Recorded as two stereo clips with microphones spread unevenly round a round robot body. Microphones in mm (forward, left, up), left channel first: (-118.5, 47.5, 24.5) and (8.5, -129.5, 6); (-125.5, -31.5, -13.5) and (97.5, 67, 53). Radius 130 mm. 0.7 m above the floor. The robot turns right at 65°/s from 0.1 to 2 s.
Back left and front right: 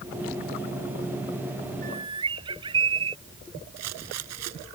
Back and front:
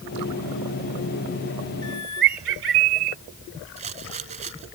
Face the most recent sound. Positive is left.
turn(degrees=-40)